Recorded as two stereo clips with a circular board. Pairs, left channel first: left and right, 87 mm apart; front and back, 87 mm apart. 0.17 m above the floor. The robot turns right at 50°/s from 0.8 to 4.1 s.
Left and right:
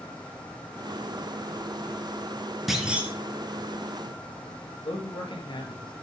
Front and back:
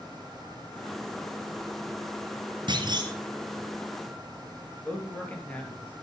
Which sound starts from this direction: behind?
A clunk, at 2.7 s.